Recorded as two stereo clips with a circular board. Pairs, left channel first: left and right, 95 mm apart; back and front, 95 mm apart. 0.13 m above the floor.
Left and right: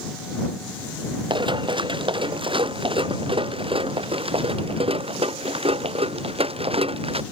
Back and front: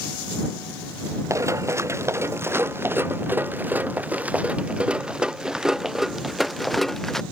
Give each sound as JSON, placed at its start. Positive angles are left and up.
{"t": 1.3, "sound": "running footsteps", "azimuth_deg": -60}